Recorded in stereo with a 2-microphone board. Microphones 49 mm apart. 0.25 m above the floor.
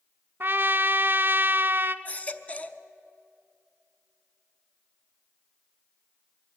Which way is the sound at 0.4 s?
45° right (ahead or behind).